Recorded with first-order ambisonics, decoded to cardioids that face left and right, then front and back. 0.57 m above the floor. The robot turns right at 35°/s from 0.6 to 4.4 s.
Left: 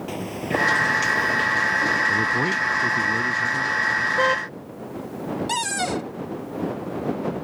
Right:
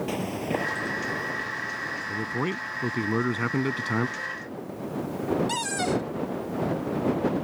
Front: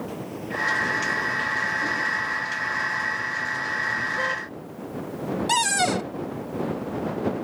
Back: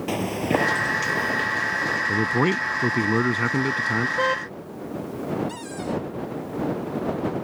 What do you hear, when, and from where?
0.1 s footsteps: straight behind; by 2.0 s 140° left
2.1 s a man speaking: 155° left; by 4.1 s 135° right
4.2 s a car horn: 110° left; by 4.5 s 120° left
5.5 s a cupboard door: 20° left